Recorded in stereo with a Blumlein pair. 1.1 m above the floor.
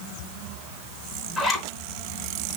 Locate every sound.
1.4 s a zipper: 10° left, 3.5 m